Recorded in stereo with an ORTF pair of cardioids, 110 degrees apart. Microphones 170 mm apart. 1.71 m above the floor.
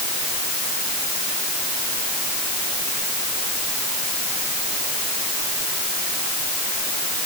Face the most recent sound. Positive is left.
No sound to turn to.